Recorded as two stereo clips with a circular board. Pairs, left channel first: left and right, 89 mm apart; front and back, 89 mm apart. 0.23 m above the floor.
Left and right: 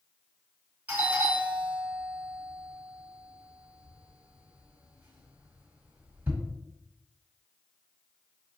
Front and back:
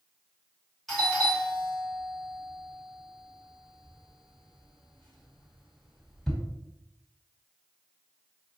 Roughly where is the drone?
No drone in this recording.